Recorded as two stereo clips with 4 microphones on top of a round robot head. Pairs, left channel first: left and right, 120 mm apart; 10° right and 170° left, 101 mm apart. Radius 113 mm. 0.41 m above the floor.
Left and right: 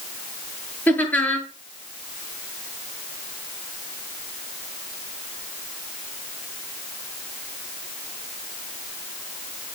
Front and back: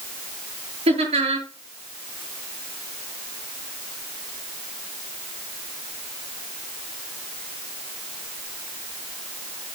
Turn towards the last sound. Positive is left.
turn(degrees=165)